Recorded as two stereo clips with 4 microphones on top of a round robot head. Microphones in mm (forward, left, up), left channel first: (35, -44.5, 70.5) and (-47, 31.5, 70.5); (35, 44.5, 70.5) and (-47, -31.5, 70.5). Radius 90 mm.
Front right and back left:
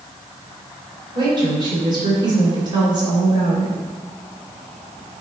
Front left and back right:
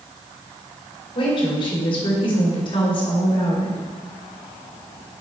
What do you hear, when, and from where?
1.1 s a woman speaking: 85° left, 2.5 m